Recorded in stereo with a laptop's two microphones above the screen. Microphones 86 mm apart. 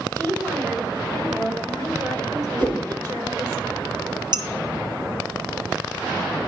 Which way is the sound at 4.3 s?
55° right (ahead or behind).